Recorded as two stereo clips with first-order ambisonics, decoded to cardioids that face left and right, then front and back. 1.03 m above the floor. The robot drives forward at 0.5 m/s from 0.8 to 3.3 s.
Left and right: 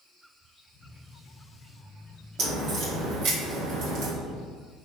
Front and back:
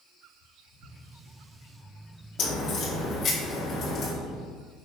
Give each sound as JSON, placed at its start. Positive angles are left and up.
{"t": 2.4, "sound": "a crack", "azimuth_deg": -50, "distance_m": 1.9}